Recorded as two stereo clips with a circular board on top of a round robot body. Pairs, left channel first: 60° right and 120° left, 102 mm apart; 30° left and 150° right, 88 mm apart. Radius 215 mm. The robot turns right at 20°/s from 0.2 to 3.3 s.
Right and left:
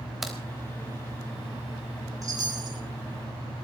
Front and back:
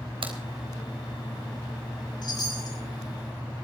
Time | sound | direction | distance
0.2 | a crack | 155° right | 3.5 m
2.2 | a chime | 65° left | 6.5 m